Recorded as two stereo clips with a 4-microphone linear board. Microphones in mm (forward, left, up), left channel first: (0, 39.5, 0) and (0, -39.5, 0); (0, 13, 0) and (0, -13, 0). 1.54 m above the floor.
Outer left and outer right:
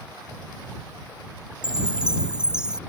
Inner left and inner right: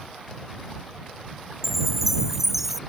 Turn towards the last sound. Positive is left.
turn(degrees=-10)  # may be behind; listen again after turning